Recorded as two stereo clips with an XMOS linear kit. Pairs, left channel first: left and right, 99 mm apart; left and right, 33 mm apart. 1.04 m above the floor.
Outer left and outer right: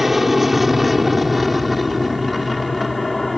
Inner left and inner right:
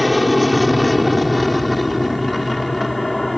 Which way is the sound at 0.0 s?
Centre (ahead or behind).